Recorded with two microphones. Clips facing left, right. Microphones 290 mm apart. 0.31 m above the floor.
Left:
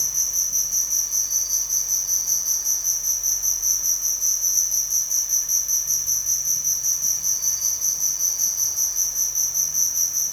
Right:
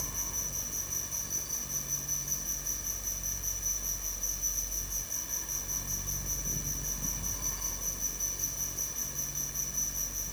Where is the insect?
90° left.